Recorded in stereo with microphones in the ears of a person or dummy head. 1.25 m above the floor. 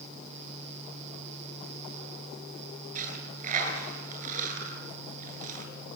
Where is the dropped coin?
50° right (ahead or behind), 10 m.